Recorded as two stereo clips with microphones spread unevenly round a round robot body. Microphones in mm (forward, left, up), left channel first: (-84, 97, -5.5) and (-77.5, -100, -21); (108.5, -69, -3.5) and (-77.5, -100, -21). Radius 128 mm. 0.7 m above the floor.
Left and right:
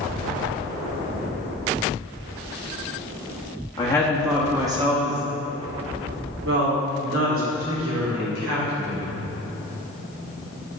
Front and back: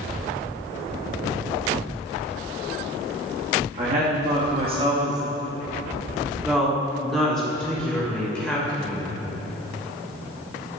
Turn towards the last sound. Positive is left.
turn(degrees=-75)